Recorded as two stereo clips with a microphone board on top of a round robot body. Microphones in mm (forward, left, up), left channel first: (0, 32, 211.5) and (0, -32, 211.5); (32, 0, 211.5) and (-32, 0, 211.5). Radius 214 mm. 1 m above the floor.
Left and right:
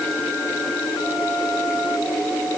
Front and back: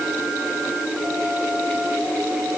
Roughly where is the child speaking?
No child speaking in this recording.